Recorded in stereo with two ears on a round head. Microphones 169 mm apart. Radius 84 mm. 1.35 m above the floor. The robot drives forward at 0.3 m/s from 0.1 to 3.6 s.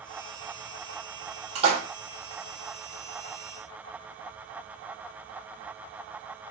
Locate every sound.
1.6 s a splash: 35° right (ahead or behind), 1.5 m